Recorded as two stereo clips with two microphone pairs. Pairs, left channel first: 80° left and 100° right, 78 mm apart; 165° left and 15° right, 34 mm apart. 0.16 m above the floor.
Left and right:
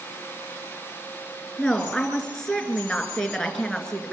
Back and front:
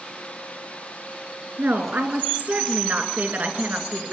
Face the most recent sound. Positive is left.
turn(degrees=0)